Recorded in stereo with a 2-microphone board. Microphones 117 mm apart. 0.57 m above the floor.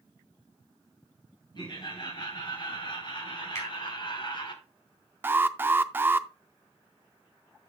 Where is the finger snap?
25° left (ahead or behind), 4.5 m.